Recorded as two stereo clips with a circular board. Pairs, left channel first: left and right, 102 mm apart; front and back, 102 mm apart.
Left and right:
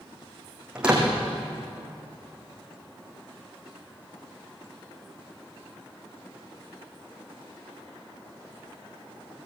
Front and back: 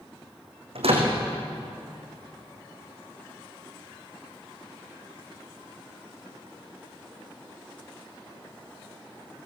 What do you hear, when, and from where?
0.8 s a door slam: 170° right, 5.5 m